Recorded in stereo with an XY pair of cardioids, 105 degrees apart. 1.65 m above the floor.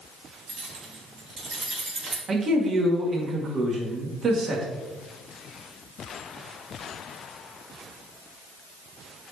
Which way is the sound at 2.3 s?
45° right.